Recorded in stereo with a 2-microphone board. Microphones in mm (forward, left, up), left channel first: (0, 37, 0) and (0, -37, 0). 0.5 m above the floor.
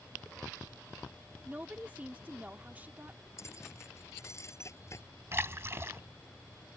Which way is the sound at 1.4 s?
25° right (ahead or behind).